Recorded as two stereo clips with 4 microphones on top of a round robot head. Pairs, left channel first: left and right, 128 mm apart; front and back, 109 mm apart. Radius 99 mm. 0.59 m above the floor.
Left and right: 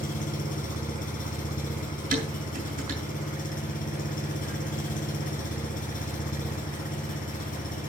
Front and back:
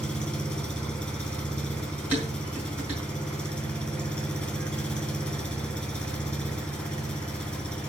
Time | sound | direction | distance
0.0 | an engine running | 80° left | 3.5 m
2.1 | dishes clattering | 100° right | 4.5 m